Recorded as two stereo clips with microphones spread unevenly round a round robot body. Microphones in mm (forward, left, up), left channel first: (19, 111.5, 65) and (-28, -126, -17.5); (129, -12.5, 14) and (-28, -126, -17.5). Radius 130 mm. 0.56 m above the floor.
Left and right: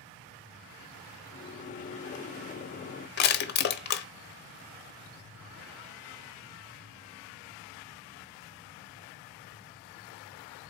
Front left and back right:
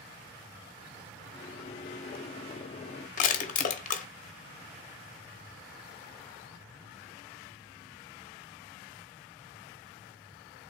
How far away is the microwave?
About 0.6 m.